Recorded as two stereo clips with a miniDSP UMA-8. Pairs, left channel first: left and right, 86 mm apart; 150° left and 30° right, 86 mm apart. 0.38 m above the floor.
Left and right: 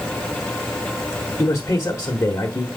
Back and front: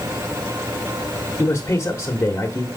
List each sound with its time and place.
1.4 s a man speaking: 110° left, 1.1 m